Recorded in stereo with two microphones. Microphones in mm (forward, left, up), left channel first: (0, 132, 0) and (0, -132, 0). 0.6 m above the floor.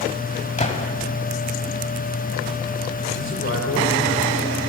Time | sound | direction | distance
0.6 | a gunshot | 25° left (ahead or behind) | 0.8 m
3.1 | a man speaking | 45° left (ahead or behind) | 2.5 m